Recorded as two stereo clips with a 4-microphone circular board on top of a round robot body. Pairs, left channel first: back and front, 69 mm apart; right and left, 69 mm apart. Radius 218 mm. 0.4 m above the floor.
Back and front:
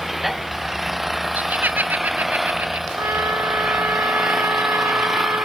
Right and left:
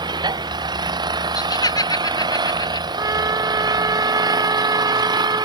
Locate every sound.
0.0 s an engine running: 85° left
1.4 s laughter: 70° right
3.0 s a trumpet: 50° left